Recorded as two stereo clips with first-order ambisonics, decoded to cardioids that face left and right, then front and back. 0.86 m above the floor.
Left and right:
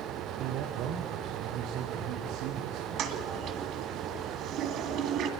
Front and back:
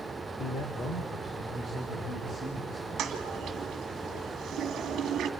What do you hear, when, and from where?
0.4 s a man speaking: 55° right, 1.9 m; by 3.5 s 65° right, 6 m
3.0 s a toilet flushing: 130° right, 2.5 m